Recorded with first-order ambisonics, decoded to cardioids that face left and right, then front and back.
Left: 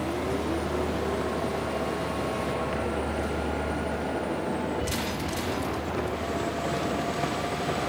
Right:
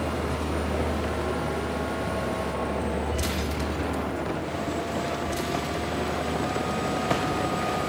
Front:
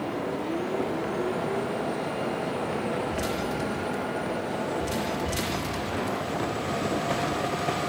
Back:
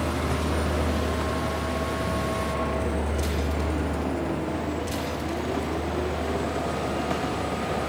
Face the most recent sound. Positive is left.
turn(degrees=-175)